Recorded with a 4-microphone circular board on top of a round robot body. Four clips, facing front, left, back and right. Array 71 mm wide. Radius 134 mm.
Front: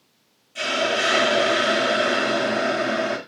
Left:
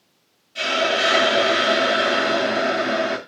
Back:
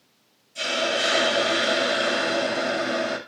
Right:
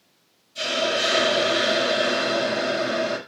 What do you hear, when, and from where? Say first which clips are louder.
0.6 s a hiss: left 4 dB, front 2 dB; 60° left, 2.5 m